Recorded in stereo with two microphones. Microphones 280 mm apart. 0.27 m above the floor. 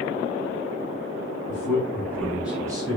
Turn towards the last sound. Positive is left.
turn(degrees=-20)  # may be behind; listen again after turning